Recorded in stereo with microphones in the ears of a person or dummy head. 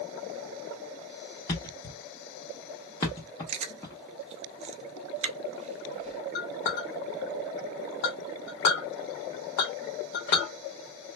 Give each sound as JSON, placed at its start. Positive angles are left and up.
{"t": 1.5, "sound": "a thud", "side_deg": 15, "distance_m": 0.7}
{"t": 3.5, "sound": "chewing", "side_deg": -30, "distance_m": 0.5}
{"t": 6.3, "sound": "a clink", "side_deg": 55, "distance_m": 1.4}